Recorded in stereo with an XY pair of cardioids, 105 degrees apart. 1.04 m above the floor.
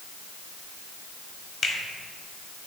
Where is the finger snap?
50° left, 1.6 m.